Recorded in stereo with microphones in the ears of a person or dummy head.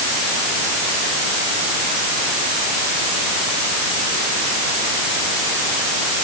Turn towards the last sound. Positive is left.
No sound to turn to.